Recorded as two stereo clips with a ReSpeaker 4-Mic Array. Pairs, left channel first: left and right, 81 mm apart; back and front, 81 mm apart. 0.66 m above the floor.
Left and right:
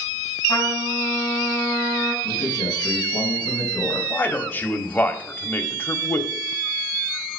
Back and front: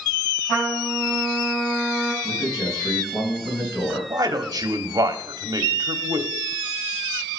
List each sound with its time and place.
0.5 s a trumpet: 140° left, 5.5 m
2.2 s a man speaking: 130° left, 3.5 m
4.1 s a man speaking: 25° left, 1.1 m